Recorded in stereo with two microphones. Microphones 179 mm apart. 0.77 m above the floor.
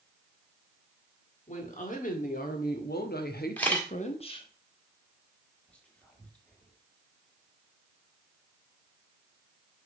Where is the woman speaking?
45° left (ahead or behind), 2.0 m; by 4.5 s 25° left (ahead or behind), 1.1 m.